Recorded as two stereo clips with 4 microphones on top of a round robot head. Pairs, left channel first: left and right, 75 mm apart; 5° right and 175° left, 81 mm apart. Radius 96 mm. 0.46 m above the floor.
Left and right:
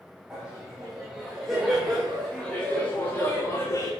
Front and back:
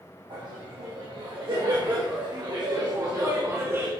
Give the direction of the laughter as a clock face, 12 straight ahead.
6 o'clock.